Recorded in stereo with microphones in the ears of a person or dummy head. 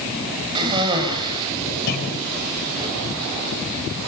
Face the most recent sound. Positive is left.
turn(degrees=45)  # may be behind; listen again after turning